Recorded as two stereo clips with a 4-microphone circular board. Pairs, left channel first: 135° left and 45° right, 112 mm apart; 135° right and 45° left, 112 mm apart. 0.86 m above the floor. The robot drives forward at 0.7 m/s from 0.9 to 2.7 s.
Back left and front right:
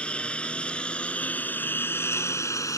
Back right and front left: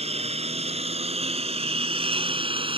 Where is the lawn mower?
55° left; by 2.8 s 75° left.